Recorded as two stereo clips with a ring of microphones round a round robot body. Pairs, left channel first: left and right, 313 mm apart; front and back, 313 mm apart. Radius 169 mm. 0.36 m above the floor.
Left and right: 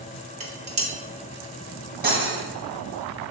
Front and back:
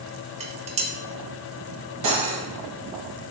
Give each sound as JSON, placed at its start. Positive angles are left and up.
{"t": 0.4, "sound": "dishes clattering", "azimuth_deg": -135, "distance_m": 0.7}
{"t": 2.0, "sound": "cutlery clinking", "azimuth_deg": -150, "distance_m": 1.3}